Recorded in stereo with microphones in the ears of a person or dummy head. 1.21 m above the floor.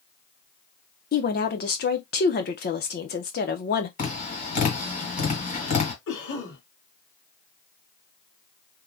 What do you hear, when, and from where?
1.1 s a woman speaking: 40° left (ahead or behind), 0.8 m
4.0 s tapping: 40° left (ahead or behind), 1.9 m
6.1 s a cough: 70° left (ahead or behind), 2 m